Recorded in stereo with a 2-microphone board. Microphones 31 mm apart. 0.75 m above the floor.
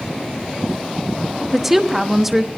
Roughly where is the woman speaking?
Centre.